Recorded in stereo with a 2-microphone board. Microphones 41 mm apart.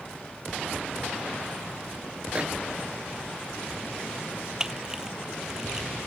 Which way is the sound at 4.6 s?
15° right (ahead or behind).